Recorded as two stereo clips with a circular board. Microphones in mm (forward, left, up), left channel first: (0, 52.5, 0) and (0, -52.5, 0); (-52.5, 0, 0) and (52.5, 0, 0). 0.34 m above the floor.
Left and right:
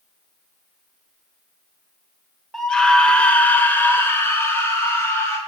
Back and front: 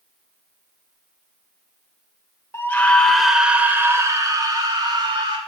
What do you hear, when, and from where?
2.5 s a scream: 170° left, 1.0 m; by 5.4 s 30° left, 1.8 m